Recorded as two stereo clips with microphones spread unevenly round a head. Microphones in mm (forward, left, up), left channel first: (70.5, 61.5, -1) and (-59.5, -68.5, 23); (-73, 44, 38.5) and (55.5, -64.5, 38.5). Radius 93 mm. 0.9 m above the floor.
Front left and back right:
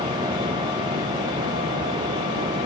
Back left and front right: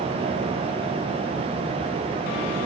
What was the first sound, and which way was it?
Only background noise.